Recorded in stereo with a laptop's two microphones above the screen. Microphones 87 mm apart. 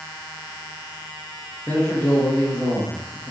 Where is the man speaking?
20° left (ahead or behind), 0.7 m.